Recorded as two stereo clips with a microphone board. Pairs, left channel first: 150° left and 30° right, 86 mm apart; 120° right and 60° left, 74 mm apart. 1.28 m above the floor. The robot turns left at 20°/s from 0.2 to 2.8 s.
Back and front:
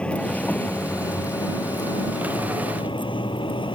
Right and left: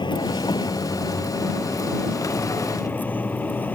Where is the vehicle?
135° right; by 3.8 s 170° left.